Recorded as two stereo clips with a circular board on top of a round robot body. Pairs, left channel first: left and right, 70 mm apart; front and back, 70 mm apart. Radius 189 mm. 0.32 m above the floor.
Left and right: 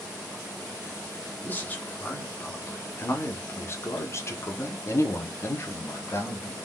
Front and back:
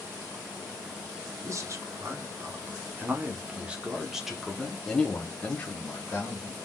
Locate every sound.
1.4 s a man speaking: 150° left, 2 m; by 6.5 s 45° left, 2.0 m